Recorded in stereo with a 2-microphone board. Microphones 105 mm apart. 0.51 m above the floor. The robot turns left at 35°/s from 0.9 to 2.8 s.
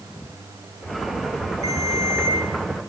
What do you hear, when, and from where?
1.6 s a ringtone: centre (ahead or behind), 4.5 m; by 2.4 s 25° left (ahead or behind), 4.5 m